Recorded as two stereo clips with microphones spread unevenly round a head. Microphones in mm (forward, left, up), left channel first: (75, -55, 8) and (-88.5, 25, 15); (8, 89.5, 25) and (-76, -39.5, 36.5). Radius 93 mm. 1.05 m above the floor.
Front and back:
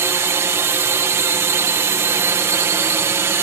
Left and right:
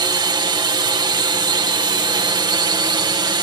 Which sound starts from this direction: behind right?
A drone, at 0.0 s.